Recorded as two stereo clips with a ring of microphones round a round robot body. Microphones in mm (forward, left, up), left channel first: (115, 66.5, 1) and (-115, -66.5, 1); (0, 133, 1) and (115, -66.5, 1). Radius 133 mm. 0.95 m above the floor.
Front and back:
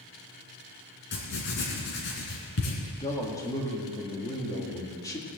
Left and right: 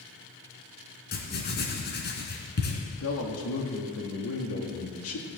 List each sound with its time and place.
1.1 s writing: 80° left, 3 m
3.0 s a man speaking: 105° left, 2 m